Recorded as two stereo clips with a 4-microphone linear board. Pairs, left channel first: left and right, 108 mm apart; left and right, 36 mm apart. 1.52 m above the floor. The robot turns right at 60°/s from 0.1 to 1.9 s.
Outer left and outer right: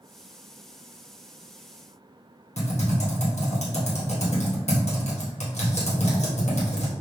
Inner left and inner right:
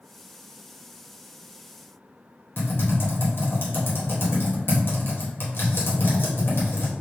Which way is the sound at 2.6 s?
85° left.